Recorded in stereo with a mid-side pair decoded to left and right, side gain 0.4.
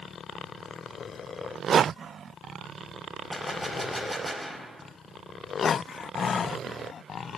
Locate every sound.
3.3 s a gunshot: 5° left, 4 m